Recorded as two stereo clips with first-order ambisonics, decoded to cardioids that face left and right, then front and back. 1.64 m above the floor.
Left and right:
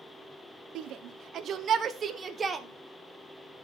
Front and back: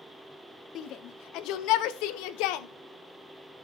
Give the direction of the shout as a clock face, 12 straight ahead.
2 o'clock.